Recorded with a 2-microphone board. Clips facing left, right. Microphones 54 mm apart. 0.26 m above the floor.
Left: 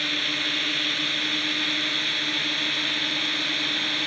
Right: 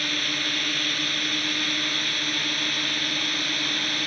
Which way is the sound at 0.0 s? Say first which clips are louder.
Even; centre (ahead or behind).